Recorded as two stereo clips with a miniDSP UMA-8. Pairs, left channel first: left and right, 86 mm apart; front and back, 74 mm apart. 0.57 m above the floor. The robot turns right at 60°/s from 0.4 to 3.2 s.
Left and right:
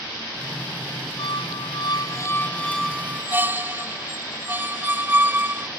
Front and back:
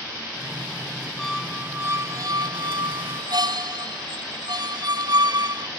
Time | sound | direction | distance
1.2 | a squeak | 85° left | ?